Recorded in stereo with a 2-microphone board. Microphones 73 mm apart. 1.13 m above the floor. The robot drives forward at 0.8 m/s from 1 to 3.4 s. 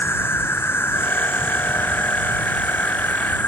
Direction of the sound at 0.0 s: 35° left (ahead or behind).